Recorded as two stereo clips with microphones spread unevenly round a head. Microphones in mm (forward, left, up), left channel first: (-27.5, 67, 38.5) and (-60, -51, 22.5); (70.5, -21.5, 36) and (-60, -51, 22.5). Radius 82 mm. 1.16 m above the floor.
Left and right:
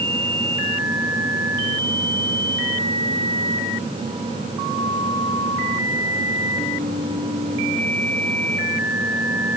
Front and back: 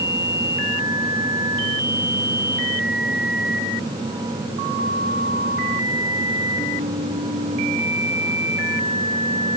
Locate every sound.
Only background noise.